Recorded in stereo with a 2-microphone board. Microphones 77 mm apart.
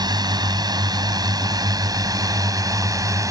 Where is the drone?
65° right (ahead or behind); by 3.3 s 45° right (ahead or behind).